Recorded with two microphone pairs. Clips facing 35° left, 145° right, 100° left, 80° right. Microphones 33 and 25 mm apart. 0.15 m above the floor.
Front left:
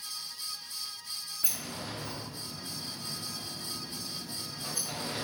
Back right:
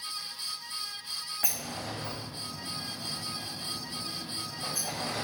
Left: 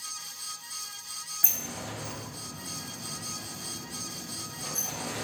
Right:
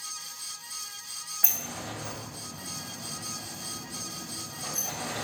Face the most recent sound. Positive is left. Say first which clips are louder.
# back right 1 dB, right 1 dB
turn(degrees=-155)